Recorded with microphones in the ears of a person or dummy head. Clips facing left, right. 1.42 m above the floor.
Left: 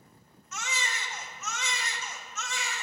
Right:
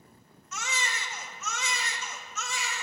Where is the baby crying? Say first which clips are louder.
Right 1 dB; 60° right (ahead or behind), 0.8 m.